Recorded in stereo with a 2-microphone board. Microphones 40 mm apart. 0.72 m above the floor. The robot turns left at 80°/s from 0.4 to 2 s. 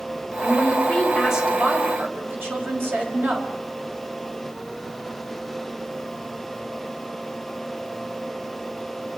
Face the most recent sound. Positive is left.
turn(degrees=-70)